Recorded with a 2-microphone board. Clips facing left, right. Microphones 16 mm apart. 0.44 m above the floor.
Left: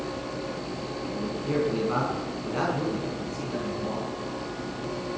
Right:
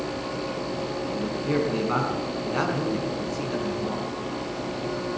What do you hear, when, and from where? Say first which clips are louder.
1.1 s a man speaking: right 2 dB; 20° right (ahead or behind), 5 m